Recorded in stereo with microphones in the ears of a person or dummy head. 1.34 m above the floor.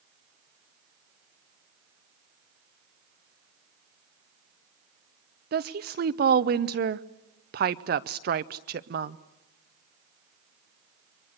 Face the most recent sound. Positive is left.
turn(degrees=-50)  # may be behind; listen again after turning